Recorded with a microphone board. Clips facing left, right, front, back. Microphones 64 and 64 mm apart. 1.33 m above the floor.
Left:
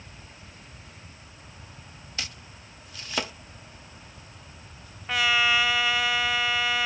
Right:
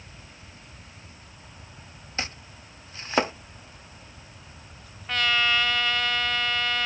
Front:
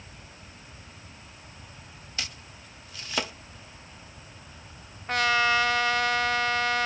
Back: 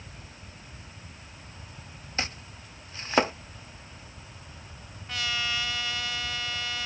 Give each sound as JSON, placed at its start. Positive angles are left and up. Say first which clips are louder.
{"t": 2.2, "sound": "chopping", "louder": "right 5 dB, back 5 dB", "azimuth_deg": -135}
{"t": 5.1, "sound": "a trumpet", "louder": "left 1 dB, front 9 dB", "azimuth_deg": 10}